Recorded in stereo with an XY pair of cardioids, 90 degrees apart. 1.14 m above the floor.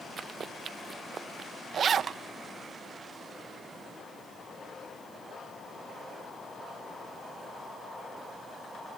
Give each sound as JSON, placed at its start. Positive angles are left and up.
{"t": 0.2, "sound": "running footsteps", "azimuth_deg": -55}
{"t": 1.7, "sound": "a zipper", "azimuth_deg": -60}